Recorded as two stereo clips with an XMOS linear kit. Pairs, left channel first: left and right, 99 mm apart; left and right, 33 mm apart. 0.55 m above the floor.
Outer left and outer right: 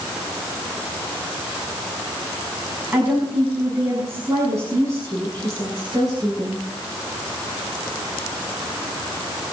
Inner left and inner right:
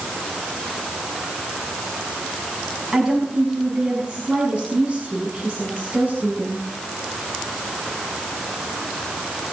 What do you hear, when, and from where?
2.9 s a woman speaking: 20° right (ahead or behind), 5.5 m; by 6.6 s 40° right (ahead or behind), 6 m